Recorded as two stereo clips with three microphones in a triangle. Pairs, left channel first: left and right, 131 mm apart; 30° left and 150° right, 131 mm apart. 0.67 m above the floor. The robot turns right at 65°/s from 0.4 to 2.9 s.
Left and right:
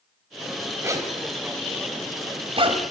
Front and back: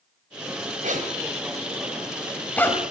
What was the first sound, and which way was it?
A zipper, 160° right.